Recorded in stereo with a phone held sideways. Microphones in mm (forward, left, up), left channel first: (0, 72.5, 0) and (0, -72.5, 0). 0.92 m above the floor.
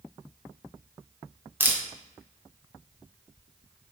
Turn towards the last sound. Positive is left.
turn(degrees=-15)  # may be behind; listen again after turning